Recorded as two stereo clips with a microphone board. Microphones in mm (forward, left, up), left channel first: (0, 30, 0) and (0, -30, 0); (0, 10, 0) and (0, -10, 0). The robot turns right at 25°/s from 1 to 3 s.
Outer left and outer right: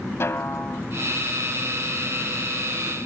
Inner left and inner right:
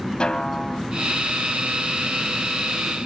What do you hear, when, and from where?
0.2 s a snare drum: 45° left (ahead or behind), 0.5 m